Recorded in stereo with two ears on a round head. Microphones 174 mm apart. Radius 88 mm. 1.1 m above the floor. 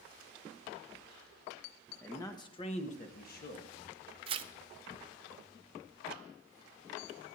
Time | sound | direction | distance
2.0 | a man speaking | 10° left (ahead or behind) | 1.3 m
4.3 | tearing paper | 25° right (ahead or behind) | 0.6 m